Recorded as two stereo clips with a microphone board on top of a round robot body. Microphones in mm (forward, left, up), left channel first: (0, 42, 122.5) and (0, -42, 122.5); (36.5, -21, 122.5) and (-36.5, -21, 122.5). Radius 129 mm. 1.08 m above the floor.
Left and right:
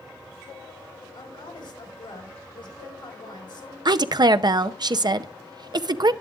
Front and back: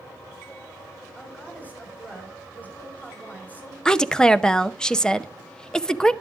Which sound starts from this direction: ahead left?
A woman speaking, at 1.1 s.